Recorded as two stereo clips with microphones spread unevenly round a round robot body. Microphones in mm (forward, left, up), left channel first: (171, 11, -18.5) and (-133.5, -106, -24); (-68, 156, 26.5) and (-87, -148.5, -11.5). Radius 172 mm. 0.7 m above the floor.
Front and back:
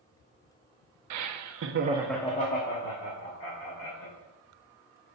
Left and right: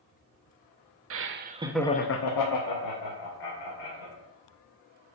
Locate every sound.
1.1 s laughter: 130° right, 1.0 m; by 4.1 s 70° left, 2.5 m